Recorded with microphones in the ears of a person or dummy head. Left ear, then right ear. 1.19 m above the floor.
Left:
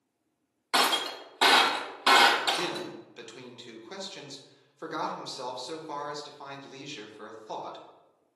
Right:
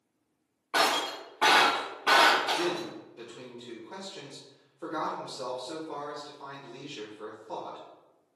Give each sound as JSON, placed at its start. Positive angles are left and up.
{"t": 0.7, "sound": "breaking glass", "side_deg": 60, "distance_m": 0.8}
{"t": 2.5, "sound": "a man speaking", "side_deg": 60, "distance_m": 1.0}